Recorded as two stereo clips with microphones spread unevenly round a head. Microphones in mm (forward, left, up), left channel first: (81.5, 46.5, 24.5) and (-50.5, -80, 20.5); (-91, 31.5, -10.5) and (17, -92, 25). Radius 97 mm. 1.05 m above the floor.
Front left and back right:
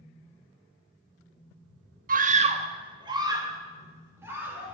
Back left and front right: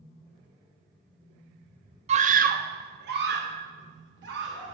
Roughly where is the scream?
Right.